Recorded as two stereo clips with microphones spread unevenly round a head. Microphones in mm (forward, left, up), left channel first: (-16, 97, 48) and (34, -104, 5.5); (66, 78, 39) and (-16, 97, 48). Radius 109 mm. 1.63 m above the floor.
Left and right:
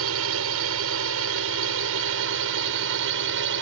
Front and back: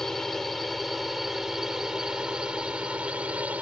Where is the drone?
100° right; by 3.6 s 110° right.